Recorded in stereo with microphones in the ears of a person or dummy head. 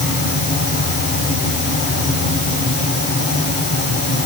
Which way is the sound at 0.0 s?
65° left (ahead or behind).